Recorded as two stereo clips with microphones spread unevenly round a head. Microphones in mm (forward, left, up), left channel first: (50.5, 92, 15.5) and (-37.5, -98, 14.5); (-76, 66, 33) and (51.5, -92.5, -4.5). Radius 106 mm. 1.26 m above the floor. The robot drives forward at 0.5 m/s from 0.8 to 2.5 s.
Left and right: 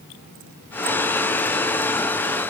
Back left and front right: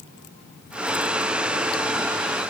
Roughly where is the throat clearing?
No throat clearing in this recording.